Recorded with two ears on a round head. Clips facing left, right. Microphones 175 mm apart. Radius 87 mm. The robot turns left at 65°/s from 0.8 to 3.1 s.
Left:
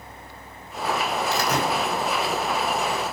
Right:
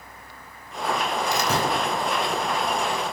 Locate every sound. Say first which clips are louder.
1.3 s a door slam: even; 15° right (ahead or behind), 5 m; by 1.7 s 35° right (ahead or behind), 5 m